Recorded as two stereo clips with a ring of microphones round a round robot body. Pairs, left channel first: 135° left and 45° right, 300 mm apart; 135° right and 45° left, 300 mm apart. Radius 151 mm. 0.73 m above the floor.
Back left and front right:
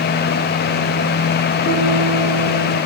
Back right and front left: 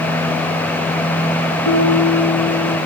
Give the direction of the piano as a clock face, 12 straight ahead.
5 o'clock.